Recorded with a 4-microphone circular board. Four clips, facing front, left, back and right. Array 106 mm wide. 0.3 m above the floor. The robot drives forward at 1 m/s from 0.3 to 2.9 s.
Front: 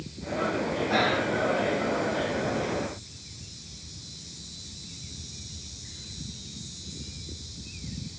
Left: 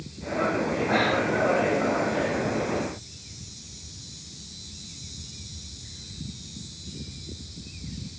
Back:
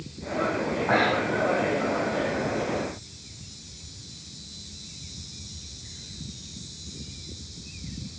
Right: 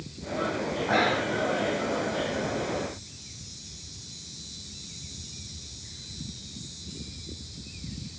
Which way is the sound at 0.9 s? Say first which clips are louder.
Even, back 3 dB; 175° right.